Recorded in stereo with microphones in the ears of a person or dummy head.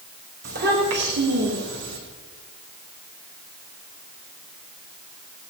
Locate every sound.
0.4 s a child speaking: 55° right (ahead or behind), 3.5 m; by 2.0 s 75° right (ahead or behind), 3.5 m